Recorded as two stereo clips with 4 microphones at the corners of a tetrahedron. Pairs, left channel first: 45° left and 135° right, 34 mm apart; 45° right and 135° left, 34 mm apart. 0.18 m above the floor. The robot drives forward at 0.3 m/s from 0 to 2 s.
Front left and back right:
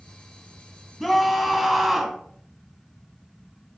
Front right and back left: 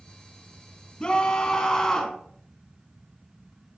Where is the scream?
40° right, 1.1 m; by 2.2 s 80° right, 1.0 m.